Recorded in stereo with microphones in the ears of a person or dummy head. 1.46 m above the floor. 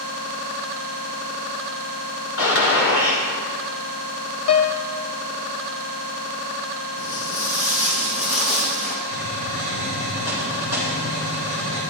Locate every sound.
2.4 s a gunshot: 70° left (ahead or behind), 3.5 m
4.5 s a piano: 80° left, 0.8 m
7.0 s footsteps: 65° left (ahead or behind), 3 m; by 8.9 s 50° left (ahead or behind), 4.5 m
9.1 s a hiss: 85° left, 6 m